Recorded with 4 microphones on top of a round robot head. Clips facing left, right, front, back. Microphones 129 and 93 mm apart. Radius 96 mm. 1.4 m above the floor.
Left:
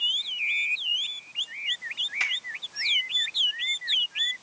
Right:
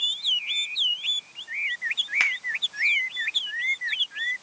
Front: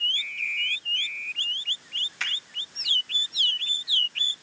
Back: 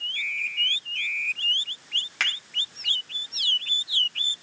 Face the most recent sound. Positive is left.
turn(degrees=-135)